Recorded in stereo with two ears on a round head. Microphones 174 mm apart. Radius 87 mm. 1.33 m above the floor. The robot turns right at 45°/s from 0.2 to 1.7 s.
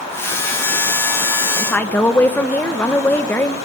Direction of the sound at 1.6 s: 5° left (ahead or behind).